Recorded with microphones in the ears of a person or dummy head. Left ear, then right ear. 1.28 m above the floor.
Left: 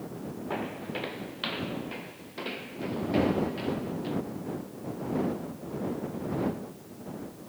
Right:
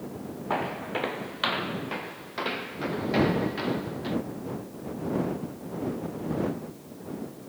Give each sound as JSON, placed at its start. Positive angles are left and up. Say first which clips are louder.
{"t": 0.5, "sound": "footsteps", "louder": "right 6 dB", "side_deg": -25}